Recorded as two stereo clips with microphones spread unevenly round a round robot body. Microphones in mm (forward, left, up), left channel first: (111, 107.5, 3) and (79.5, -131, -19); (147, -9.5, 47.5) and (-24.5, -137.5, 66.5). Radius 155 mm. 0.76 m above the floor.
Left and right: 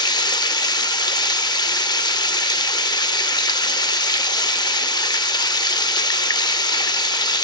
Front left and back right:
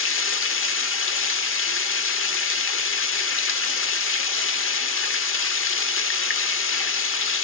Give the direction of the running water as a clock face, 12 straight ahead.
12 o'clock.